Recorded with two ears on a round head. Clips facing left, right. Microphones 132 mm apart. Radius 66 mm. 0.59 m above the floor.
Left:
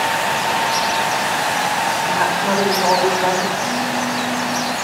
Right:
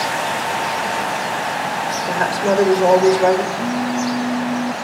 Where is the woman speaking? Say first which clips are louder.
Right 1 dB; 35° right (ahead or behind), 1.4 m.